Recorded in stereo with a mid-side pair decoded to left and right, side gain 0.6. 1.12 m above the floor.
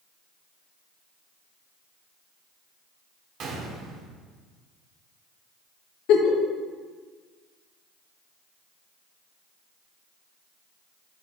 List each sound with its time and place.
3.4 s a gunshot: 55° right, 2 m
6.1 s a giggle: 70° left, 1.2 m